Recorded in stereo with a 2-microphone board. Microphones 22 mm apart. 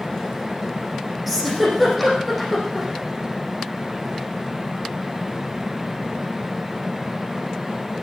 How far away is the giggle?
About 6 m.